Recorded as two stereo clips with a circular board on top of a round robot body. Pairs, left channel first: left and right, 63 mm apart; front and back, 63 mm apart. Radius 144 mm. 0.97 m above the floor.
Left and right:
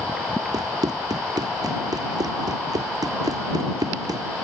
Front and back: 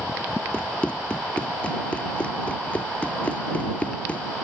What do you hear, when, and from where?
0.5 s running footsteps: 70° right